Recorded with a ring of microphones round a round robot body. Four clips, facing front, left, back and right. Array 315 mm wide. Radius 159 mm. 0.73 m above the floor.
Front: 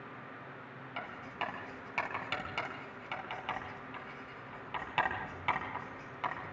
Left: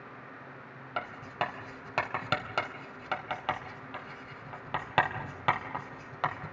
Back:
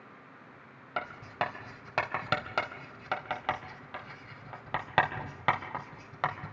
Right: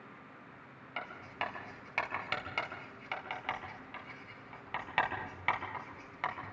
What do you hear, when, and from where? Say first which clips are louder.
1.0 s writing: left 6 dB, back 7 dB; 140° left, 3 m